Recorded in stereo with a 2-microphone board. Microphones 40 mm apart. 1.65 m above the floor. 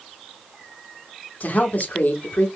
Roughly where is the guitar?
No guitar in this recording.